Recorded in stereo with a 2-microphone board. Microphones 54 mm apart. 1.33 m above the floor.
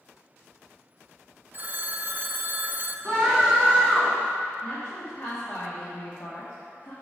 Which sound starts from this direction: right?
A phone ringing, at 1.5 s.